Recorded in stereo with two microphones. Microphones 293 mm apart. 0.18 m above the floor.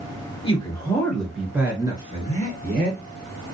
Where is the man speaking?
20° left (ahead or behind), 2.5 m; by 3.0 s 35° right (ahead or behind), 3 m.